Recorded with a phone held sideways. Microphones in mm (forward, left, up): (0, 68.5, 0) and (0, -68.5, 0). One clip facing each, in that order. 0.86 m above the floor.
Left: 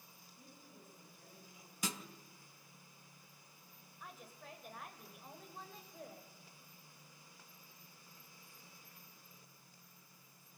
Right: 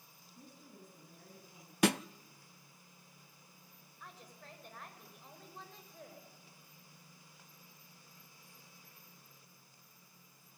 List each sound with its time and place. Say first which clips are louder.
0.3 s a woman speaking: right 5 dB; 80° right, 8.5 m; by 1.7 s 75° right (ahead or behind), 10 m
1.8 s a snare drum: right 14 dB; 70° right (ahead or behind), 0.6 m
4.0 s a woman speaking: left 1 dB; 5° left (ahead or behind), 5 m